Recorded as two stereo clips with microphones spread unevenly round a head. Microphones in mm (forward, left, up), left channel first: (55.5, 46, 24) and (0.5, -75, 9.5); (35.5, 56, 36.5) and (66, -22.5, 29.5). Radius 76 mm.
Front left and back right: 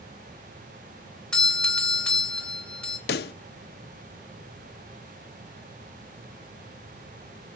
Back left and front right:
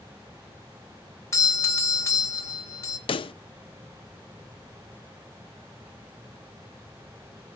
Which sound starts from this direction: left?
A pop, at 3.1 s.